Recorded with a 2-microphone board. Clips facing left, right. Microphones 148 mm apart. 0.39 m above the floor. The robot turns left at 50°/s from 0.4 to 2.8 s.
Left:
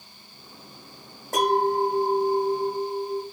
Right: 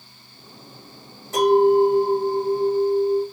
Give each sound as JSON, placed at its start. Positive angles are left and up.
{"t": 1.3, "sound": "a clink", "azimuth_deg": 65, "distance_m": 1.3}